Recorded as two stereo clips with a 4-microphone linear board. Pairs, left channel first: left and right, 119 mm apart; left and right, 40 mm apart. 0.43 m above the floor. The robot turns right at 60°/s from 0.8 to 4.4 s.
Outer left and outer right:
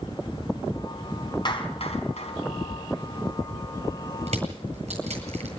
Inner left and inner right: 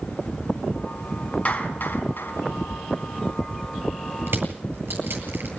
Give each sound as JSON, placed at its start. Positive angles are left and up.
{"t": 1.4, "sound": "a clap", "side_deg": 40, "distance_m": 3.0}
{"t": 4.3, "sound": "crushing", "side_deg": -65, "distance_m": 8.5}